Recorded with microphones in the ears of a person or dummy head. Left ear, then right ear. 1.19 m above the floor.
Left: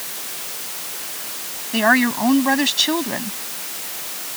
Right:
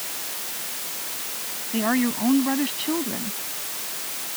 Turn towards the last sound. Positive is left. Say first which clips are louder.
# left 8 dB
turn(degrees=55)  # may be behind; listen again after turning